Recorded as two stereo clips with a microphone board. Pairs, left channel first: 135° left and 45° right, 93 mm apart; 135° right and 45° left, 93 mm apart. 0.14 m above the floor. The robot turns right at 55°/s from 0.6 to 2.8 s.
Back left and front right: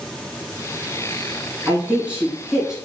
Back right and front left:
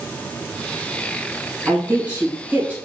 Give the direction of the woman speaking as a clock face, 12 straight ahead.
1 o'clock.